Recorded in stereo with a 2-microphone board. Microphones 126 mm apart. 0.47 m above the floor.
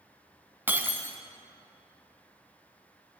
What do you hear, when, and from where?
0.7 s breaking glass: 15° right (ahead or behind), 1.2 m